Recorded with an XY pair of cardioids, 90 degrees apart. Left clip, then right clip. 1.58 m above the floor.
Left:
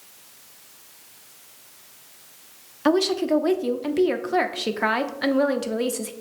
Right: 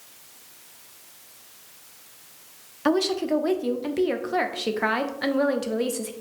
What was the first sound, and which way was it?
A woman speaking, 15° left.